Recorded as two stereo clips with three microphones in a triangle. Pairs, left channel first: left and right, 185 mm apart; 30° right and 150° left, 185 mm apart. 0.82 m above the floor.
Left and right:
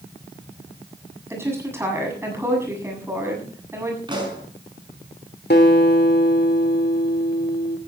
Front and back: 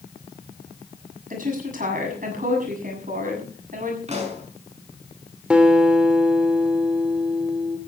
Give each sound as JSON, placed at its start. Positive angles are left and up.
{"t": 1.3, "sound": "a woman speaking", "azimuth_deg": -165, "distance_m": 7.5}
{"t": 4.1, "sound": "a pop", "azimuth_deg": -155, "distance_m": 5.5}
{"t": 5.5, "sound": "a guitar", "azimuth_deg": 65, "distance_m": 2.5}